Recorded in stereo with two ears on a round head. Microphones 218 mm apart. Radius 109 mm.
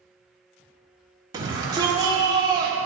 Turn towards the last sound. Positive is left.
turn(degrees=-15)  # may be behind; listen again after turning